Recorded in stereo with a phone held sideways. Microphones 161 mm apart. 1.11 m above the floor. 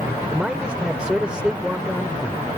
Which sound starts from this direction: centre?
A man speaking, at 0.3 s.